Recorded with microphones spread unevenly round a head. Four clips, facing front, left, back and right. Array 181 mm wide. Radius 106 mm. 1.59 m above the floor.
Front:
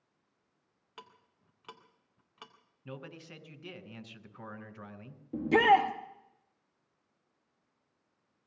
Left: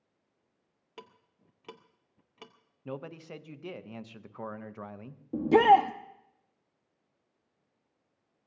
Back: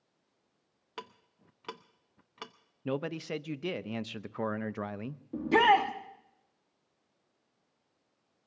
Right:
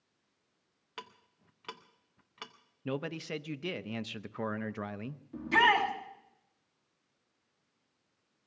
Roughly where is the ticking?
Behind left.